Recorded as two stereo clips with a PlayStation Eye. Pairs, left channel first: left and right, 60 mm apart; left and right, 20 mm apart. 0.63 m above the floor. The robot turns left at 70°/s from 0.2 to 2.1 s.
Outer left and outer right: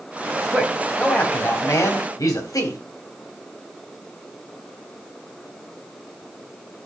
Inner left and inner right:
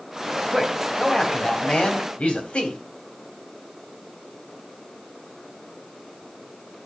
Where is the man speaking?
155° right, 3 m; by 2.8 s 95° left, 3 m.